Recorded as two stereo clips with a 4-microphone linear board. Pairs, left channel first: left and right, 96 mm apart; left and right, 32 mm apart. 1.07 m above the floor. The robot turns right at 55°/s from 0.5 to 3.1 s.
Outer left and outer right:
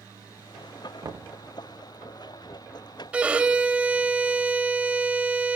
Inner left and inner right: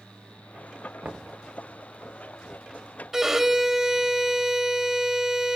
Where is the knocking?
45° right (ahead or behind), 0.7 m; by 1.4 s 65° right (ahead or behind), 0.7 m.